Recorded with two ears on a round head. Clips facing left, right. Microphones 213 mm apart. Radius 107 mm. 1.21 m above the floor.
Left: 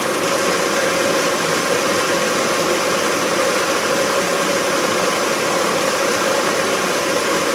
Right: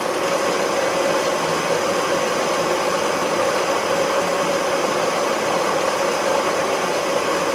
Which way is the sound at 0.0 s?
25° left (ahead or behind).